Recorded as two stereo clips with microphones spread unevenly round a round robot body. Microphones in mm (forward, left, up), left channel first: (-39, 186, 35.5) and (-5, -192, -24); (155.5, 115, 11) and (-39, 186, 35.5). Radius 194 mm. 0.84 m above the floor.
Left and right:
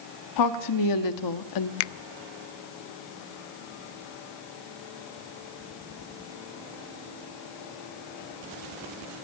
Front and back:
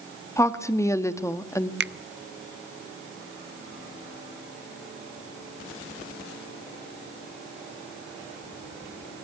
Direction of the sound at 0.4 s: 55° left.